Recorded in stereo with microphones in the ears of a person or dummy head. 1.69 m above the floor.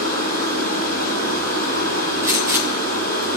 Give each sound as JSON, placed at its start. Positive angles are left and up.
{"t": 0.0, "sound": "running water", "side_deg": -65, "distance_m": 3.5}
{"t": 2.2, "sound": "a gunshot", "side_deg": -10, "distance_m": 1.4}